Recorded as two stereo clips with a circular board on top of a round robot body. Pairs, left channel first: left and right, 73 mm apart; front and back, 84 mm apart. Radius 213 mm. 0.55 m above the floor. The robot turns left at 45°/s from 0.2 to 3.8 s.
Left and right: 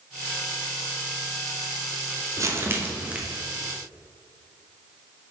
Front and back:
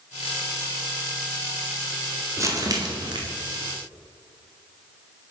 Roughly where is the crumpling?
Behind right.